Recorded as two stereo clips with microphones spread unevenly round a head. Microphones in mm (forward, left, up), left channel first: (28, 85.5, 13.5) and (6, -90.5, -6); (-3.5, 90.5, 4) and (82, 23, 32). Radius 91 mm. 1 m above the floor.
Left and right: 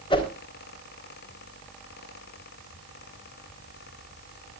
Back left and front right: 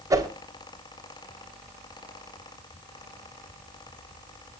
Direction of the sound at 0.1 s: 20° left.